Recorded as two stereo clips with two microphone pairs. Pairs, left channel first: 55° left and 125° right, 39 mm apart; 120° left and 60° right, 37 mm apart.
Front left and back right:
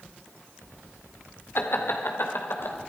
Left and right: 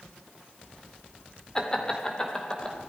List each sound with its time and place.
1.6 s laughter: 50° left, 2 m; by 2.8 s 55° left, 3 m